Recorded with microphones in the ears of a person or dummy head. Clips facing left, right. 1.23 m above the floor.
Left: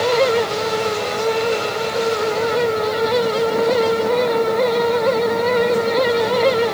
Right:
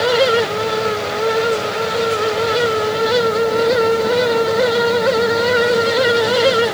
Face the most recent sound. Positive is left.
No sound to turn to.